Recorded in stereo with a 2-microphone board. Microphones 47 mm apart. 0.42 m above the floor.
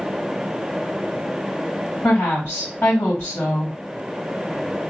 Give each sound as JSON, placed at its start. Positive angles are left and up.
{"t": 2.0, "sound": "a woman speaking", "side_deg": 50, "distance_m": 2.0}